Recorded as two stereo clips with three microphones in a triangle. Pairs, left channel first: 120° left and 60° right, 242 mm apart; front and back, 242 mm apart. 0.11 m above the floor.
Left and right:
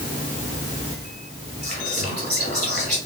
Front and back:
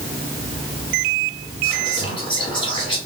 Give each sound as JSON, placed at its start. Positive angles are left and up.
{"t": 1.6, "sound": "whispering", "azimuth_deg": -60, "distance_m": 1.6}